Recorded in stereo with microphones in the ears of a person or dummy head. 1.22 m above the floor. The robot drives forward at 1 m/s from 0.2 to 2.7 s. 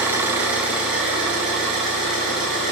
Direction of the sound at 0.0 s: 10° right (ahead or behind).